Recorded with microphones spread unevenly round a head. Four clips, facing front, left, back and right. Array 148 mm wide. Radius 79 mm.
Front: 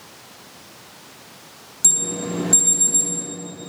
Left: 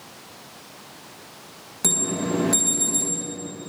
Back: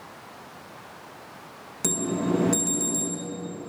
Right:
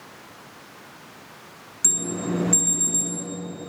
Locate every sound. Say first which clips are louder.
1.8 s an alarm: left 2 dB, back 3 dB; 120° left, 1.9 m